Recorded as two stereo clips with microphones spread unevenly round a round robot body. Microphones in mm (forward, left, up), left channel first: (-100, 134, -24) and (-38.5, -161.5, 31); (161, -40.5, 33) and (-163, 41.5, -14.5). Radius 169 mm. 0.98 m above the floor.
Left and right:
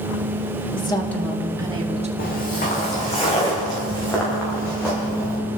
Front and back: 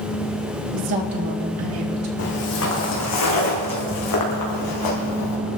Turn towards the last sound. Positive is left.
turn(degrees=10)